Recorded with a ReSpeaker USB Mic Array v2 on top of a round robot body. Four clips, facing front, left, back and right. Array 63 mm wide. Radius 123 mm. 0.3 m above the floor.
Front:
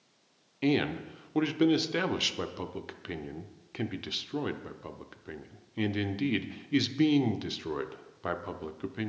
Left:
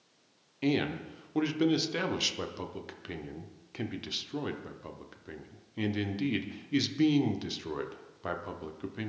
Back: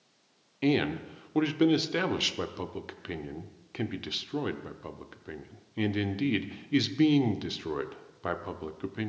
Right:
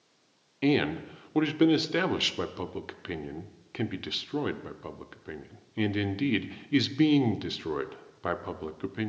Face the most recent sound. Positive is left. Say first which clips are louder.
# right 4 dB, back 1 dB
turn(degrees=-95)